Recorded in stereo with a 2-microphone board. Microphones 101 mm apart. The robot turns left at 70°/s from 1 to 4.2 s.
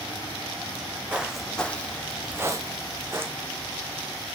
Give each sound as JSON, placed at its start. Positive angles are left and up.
{"t": 0.7, "sound": "footsteps", "side_deg": -20, "distance_m": 1.9}